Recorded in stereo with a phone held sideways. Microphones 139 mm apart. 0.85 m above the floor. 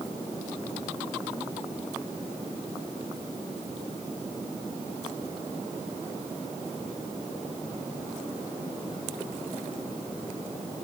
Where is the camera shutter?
No camera shutter in this recording.